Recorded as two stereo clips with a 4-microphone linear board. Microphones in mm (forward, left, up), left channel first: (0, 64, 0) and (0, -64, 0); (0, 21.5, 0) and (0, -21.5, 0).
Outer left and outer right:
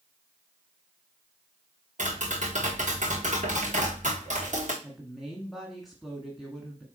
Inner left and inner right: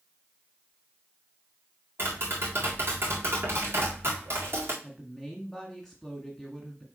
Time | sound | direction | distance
2.0 | tapping | 70° right (ahead or behind) | 3.5 m
4.8 | a woman speaking | centre (ahead or behind) | 1.7 m